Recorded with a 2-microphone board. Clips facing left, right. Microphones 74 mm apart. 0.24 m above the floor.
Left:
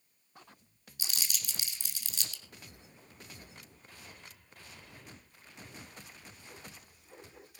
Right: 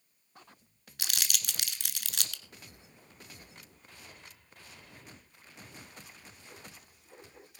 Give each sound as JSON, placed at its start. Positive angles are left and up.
{"t": 1.0, "sound": "crumpling", "side_deg": -75, "distance_m": 1.2}